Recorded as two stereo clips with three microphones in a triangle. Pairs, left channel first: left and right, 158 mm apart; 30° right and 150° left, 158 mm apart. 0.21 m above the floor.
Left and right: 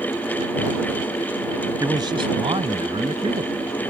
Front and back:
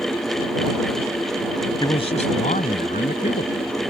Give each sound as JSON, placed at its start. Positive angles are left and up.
{"t": 1.8, "sound": "a man speaking", "azimuth_deg": -50}